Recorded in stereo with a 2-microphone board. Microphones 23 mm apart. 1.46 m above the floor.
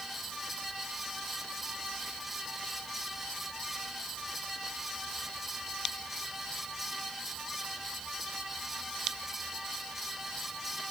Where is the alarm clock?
No alarm clock in this recording.